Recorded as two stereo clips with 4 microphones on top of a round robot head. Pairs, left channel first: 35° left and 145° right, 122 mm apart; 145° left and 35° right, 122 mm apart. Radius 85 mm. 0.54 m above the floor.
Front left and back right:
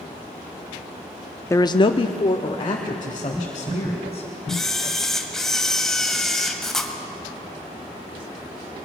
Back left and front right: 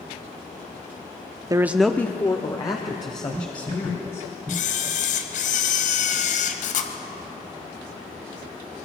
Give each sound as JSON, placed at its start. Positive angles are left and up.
{"t": 1.5, "sound": "a man speaking", "azimuth_deg": -10, "distance_m": 0.7}
{"t": 4.5, "sound": "a camera shutter", "azimuth_deg": 125, "distance_m": 1.7}